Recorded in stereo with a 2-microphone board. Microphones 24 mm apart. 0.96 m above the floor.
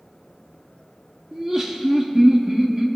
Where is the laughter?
20° right (ahead or behind), 1.6 m.